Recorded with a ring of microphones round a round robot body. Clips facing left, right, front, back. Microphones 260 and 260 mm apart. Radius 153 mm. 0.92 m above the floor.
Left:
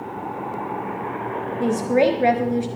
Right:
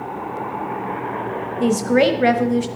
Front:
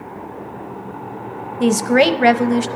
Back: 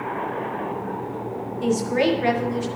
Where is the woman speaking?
15° right, 0.7 m.